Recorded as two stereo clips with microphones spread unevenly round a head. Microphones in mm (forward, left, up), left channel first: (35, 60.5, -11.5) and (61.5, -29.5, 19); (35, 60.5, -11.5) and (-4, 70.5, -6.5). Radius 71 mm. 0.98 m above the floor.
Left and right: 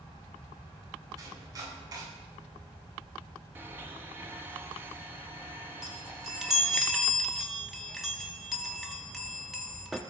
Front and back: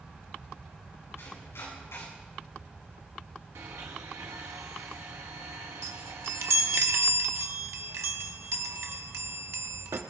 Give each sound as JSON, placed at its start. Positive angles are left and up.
{"t": 1.2, "sound": "chopping", "azimuth_deg": -30, "distance_m": 9.0}
{"t": 3.5, "sound": "a blender", "azimuth_deg": -155, "distance_m": 1.1}
{"t": 5.8, "sound": "a chime", "azimuth_deg": -160, "distance_m": 0.9}